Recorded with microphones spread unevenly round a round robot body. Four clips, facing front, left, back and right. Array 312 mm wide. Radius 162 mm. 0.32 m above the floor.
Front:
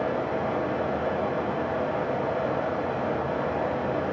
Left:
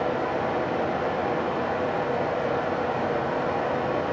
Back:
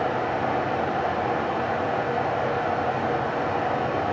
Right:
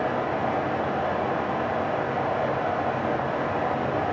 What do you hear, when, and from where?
0.0 s running water: 135° right, 2 m